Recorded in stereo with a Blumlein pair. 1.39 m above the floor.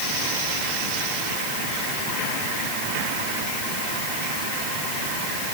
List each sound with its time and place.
Only background noise.